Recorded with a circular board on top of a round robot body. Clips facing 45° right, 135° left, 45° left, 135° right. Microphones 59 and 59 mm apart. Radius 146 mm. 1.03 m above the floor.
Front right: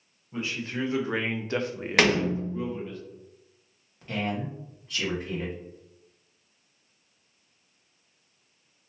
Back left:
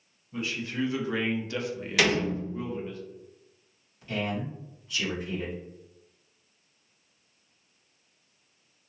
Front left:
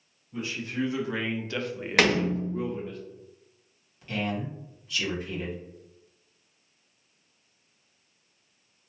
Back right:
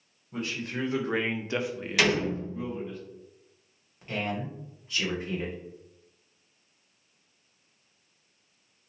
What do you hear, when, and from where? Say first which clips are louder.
0.3 s a man speaking: even, front left 1 dB; 105° right, 1.3 m; by 3.0 s 50° left, 1.1 m
2.0 s a door slam: front right 3 dB, front left 2 dB; straight ahead, 0.8 m
4.0 s a man speaking: front right 1 dB, front left 1 dB; 80° right, 1.6 m